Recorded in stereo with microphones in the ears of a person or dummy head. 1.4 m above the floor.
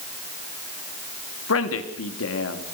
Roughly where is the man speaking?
Left.